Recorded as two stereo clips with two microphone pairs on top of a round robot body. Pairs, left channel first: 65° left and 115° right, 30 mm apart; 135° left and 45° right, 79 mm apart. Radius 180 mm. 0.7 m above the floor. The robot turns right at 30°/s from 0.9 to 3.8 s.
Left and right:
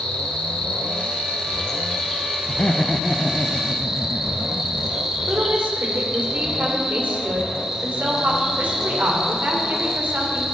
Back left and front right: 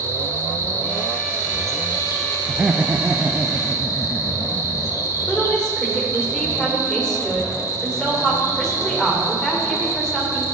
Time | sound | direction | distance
0.0 | an insect | 85° left | 2 m
2.5 | laughter | 10° left | 0.8 m
5.3 | a woman speaking | 140° right | 2.5 m